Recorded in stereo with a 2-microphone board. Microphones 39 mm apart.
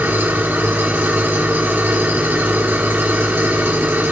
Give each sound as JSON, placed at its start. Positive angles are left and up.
{"t": 0.0, "sound": "an engine running", "side_deg": -75, "distance_m": 3.5}